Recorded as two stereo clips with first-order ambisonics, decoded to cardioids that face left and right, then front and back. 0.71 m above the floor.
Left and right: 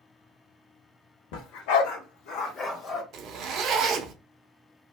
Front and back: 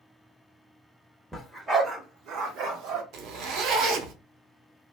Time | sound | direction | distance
1.3 | a dog barking | 90° left | 0.8 m
3.1 | a zipper | 140° right | 0.7 m